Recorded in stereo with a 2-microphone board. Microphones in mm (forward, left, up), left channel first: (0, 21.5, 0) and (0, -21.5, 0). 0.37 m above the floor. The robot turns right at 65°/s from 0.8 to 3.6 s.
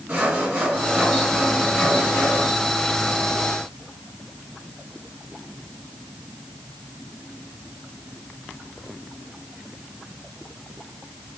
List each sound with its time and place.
0.1 s sawing: 55° right, 2.5 m; by 2.5 s 55° left, 2.5 m